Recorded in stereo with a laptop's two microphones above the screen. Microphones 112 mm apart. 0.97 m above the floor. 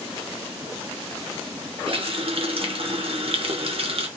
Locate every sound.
1.9 s a running tap: 55° right (ahead or behind), 1.0 m